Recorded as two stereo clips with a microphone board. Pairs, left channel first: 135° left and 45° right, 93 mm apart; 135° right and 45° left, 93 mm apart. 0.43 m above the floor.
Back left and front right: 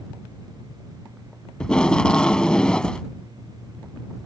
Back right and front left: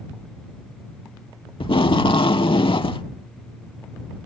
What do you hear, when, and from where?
1.6 s tape being pulled: 145° right